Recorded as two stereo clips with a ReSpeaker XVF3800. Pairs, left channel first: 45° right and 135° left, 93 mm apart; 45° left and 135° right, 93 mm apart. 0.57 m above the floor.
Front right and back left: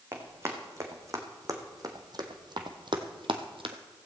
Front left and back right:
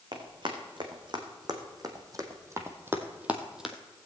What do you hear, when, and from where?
0.1 s running footsteps: 165° right, 2.5 m; by 3.8 s 135° left, 1.2 m